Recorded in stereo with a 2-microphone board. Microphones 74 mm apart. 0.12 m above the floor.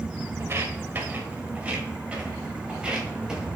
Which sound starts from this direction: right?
Footsteps, at 0.4 s.